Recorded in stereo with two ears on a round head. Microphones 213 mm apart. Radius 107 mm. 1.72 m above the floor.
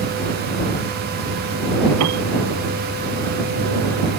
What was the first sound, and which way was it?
A piano, 75° right (ahead or behind).